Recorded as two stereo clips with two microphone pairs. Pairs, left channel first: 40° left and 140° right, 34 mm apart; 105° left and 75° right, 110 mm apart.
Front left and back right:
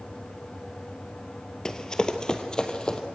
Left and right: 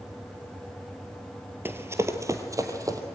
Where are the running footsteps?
15° right, 1.5 m; by 3.0 s 20° right, 2.5 m.